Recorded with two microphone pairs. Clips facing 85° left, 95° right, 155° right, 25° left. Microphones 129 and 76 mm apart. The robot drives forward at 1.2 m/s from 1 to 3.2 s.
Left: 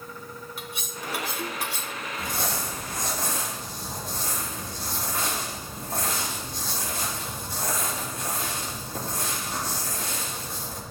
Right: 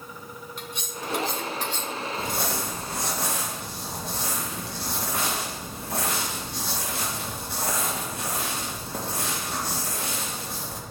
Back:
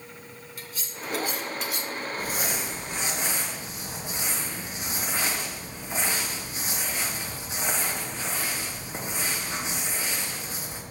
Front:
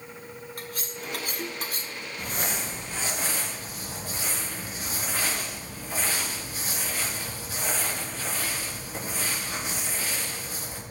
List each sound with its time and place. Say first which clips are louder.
0.6 s cutlery clinking: right 4 dB, front 1 dB; 5° left, 1.9 m; by 1.9 s 10° left, 0.9 m
2.2 s crumpling: even, front 2 dB; 70° right, 4.5 m; by 10.8 s 90° right, 4 m